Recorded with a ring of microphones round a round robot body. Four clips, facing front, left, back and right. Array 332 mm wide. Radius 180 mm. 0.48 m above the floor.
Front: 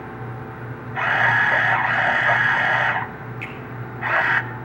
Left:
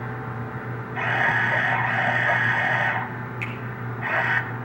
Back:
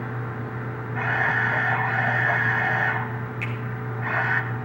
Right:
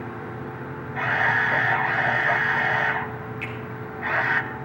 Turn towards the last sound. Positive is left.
turn(degrees=110)